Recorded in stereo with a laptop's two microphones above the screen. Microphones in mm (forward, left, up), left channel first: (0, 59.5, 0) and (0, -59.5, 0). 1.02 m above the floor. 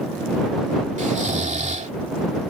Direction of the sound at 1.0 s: 80° right.